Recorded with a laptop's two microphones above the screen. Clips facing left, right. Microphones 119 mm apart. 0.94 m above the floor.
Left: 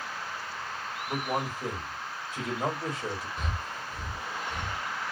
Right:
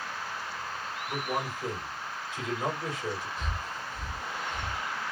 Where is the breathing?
60° left (ahead or behind), 0.9 m.